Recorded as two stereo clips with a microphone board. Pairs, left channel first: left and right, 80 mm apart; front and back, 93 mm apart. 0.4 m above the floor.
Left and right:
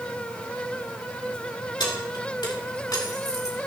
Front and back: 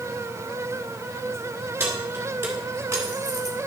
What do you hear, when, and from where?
1.8 s keys jangling: 115° left, 3.5 m; by 3.7 s 135° left, 1.8 m